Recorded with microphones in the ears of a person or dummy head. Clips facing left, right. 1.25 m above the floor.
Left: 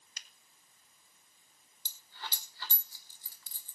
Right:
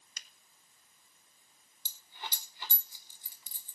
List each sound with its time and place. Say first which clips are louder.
0.2 s a finger snap: even; 75° right (ahead or behind), 1.2 m
1.9 s a dropped coin: right 1 dB; 10° right (ahead or behind), 1.0 m